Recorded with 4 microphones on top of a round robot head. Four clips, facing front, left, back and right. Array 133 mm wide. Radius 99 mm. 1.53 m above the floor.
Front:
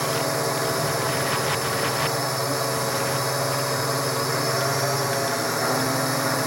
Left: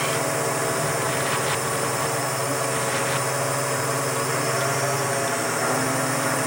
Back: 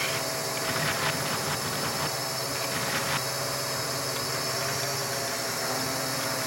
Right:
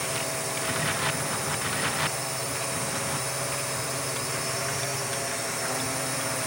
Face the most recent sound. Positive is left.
turn(degrees=50)